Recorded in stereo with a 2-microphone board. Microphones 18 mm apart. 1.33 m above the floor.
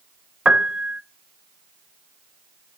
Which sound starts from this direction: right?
A piano, at 0.5 s.